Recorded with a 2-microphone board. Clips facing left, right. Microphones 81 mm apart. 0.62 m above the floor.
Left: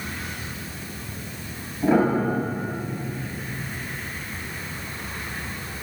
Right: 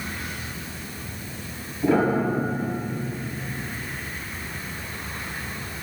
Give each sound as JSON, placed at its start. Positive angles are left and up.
{"t": 1.8, "sound": "a piano", "side_deg": 20, "distance_m": 3.5}